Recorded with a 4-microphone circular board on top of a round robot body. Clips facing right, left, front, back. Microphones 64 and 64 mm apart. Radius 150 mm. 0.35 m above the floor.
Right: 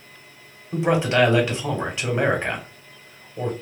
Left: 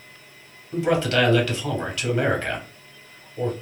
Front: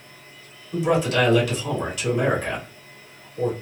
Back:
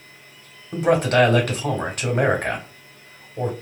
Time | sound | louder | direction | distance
0.7 | a man speaking | right 1 dB, back 3 dB | 155° right | 1.3 m